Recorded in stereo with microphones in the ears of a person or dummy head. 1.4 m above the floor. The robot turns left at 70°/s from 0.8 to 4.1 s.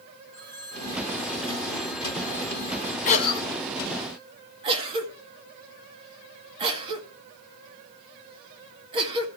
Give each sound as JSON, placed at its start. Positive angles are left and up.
{"t": 0.3, "sound": "a phone ringing", "azimuth_deg": 170, "distance_m": 6.0}
{"t": 3.0, "sound": "a cough", "side_deg": 40, "distance_m": 2.0}